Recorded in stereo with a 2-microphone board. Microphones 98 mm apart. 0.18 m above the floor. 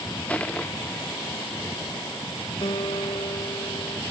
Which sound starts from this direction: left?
A guitar, at 2.6 s.